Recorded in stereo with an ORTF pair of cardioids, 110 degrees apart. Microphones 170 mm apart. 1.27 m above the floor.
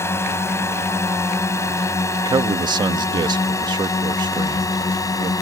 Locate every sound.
0.0 s a drone: 15° left; by 5.4 s 20° left
2.2 s a man speaking: 25° right